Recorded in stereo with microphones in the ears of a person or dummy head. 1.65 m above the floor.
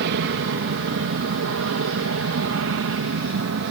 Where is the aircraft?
60° right (ahead or behind).